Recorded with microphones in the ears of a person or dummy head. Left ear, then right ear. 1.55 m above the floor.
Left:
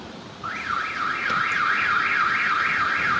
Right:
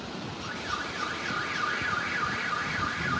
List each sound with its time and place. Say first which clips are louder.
0.4 s an alarm: left 8 dB; 60° left (ahead or behind)